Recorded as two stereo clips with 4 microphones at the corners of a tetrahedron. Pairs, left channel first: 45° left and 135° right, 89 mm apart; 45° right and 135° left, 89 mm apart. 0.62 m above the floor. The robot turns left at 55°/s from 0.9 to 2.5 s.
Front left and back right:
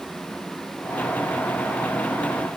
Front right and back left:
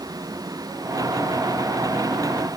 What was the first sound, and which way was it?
Only background noise.